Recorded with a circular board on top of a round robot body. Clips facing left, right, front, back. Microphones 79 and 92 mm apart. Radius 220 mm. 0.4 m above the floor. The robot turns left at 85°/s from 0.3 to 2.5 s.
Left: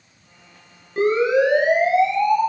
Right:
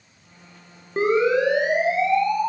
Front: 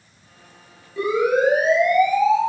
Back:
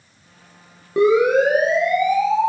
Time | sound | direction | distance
1.0 | a siren | 155° right | 9.5 m